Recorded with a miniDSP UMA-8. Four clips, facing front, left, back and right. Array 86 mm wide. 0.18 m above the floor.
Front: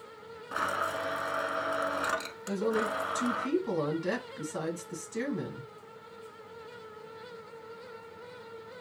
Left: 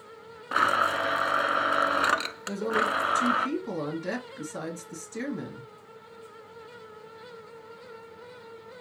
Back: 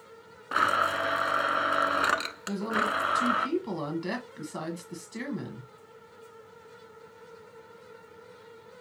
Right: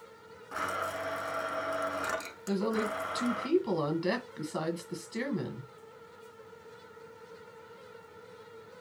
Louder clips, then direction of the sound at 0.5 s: Left 10 dB, back 6 dB; 120° left.